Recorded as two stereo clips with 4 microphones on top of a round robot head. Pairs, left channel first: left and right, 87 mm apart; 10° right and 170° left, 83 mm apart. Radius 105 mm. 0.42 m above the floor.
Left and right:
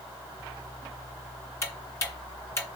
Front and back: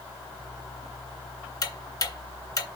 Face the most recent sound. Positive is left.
turn(degrees=25)